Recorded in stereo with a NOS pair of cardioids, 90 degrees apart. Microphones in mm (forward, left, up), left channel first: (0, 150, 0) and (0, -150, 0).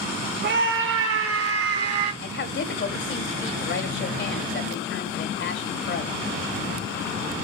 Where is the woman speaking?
40° left, 2.5 m.